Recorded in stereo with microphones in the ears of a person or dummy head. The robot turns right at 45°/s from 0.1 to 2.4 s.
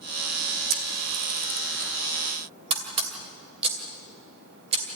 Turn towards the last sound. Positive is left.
turn(degrees=-30)  # may be behind; listen again after turning